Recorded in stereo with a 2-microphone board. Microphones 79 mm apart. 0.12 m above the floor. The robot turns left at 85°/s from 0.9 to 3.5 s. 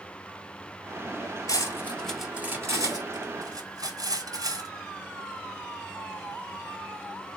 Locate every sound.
1.5 s cutlery clinking: 50° left (ahead or behind), 1.6 m; by 4.7 s 55° right (ahead or behind), 1.6 m